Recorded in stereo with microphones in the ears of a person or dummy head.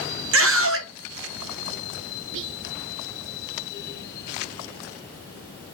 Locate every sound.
0.3 s a scream: 65° right (ahead or behind), 1.5 m
2.3 s whispering: 75° right (ahead or behind), 0.7 m